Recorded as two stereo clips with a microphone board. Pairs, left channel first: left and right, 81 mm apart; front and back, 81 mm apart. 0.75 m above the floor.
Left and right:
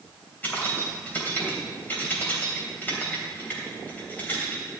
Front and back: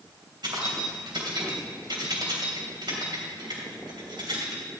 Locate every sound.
0.4 s keys jangling: 160° left, 3 m